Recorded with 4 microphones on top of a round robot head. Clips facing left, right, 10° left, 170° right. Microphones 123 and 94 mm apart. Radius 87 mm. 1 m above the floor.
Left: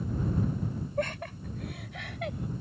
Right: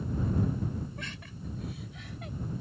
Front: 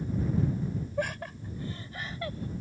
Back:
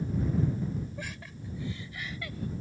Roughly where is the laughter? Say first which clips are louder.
Left 11 dB, front 9 dB; ahead left.